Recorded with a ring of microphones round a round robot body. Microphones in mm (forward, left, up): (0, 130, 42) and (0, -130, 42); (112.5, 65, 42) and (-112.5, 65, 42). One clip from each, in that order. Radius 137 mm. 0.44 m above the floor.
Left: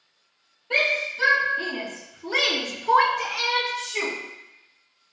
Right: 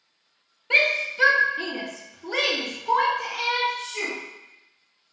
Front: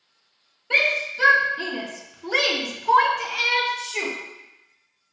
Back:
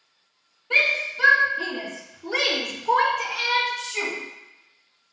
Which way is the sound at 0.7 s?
55° right.